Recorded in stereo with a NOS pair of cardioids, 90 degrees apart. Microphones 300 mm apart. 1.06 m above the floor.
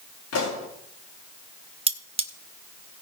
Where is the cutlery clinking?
20° right, 1.3 m.